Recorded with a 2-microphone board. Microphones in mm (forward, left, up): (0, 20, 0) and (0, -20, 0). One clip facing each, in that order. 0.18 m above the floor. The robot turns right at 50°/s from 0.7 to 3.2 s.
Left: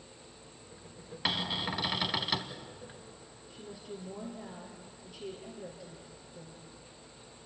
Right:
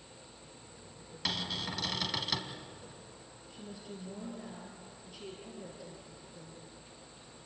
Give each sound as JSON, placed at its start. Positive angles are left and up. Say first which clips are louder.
{"t": 1.2, "sound": "a cupboard door", "louder": "left 4 dB", "side_deg": 25, "distance_m": 1.5}
{"t": 3.5, "sound": "a woman speaking", "louder": "left 2 dB", "side_deg": 5, "distance_m": 4.0}